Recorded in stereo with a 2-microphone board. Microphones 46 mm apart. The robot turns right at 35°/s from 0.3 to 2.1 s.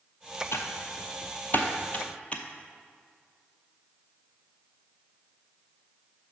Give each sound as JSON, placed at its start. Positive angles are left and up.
{"t": 0.5, "sound": "typing on a keyboard", "side_deg": 75, "distance_m": 0.7}